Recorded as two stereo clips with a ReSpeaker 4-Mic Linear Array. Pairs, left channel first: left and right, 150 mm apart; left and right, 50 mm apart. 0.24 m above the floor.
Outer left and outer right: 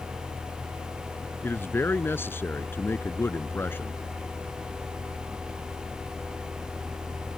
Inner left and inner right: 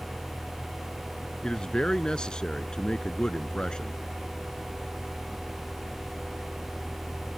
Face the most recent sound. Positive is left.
turn(degrees=15)  # may be behind; listen again after turning